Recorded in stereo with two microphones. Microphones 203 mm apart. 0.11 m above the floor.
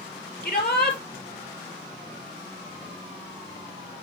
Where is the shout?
50° left (ahead or behind), 2.5 m.